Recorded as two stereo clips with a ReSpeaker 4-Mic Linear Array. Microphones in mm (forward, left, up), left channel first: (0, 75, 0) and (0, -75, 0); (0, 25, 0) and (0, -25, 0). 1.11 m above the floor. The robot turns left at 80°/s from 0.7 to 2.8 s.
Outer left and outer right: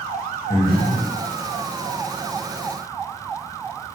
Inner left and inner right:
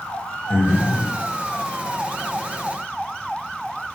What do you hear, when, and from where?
0.5 s breathing: 75° left, 1.3 m; by 1.1 s 40° left, 1.3 m